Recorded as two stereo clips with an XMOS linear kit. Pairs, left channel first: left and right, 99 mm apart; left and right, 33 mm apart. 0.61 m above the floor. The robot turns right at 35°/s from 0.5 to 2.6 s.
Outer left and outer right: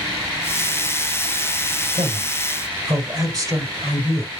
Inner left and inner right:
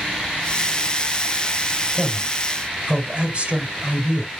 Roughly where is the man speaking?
Right.